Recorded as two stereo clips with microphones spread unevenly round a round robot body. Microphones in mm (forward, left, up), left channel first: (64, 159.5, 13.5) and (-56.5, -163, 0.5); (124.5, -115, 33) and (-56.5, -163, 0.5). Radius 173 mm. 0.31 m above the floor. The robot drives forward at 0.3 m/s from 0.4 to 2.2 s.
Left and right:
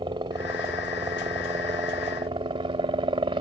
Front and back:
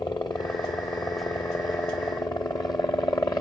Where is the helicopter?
50° right.